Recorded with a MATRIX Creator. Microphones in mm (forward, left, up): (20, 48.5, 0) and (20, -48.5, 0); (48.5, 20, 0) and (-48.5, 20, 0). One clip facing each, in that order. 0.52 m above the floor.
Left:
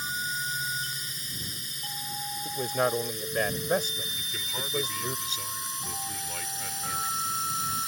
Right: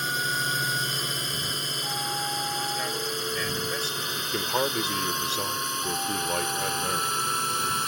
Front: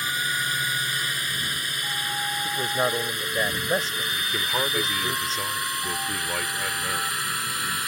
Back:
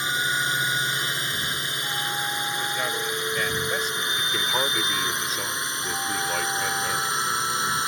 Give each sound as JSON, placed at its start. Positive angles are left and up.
{"t": 0.0, "sound": "a drone", "azimuth_deg": -110}
{"t": 2.5, "sound": "a man speaking", "azimuth_deg": 55}
{"t": 4.2, "sound": "a man speaking", "azimuth_deg": -90}